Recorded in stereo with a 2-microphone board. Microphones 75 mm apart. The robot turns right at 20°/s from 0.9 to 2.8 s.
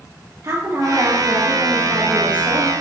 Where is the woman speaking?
50° right, 3.5 m; by 2.7 s 15° right, 3.5 m.